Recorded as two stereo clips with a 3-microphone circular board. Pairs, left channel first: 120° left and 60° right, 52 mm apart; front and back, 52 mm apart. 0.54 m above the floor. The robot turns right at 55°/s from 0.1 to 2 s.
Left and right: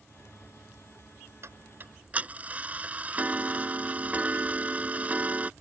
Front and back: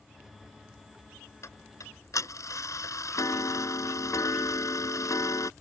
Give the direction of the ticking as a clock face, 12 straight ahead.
1 o'clock.